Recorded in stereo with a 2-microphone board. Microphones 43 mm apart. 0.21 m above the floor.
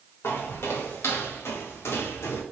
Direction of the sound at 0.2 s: 65° left (ahead or behind).